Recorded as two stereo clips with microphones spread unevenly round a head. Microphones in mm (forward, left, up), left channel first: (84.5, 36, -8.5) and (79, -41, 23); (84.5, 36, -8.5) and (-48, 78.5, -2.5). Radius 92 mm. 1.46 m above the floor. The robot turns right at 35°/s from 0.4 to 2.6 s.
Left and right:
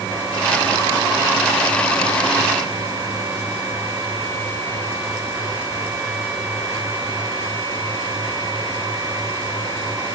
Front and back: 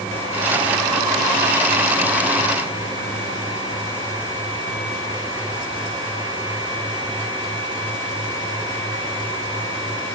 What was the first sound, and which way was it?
Only background noise.